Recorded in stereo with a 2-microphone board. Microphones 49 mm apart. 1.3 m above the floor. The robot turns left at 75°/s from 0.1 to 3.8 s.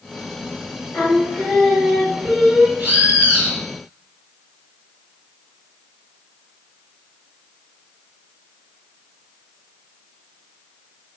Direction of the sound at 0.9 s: 95° left.